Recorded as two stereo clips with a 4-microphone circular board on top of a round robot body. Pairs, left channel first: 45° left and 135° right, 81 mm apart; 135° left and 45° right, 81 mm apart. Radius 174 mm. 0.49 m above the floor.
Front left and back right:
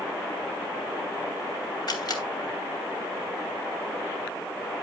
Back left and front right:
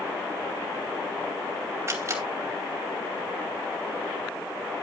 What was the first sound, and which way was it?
A camera shutter, 10° left.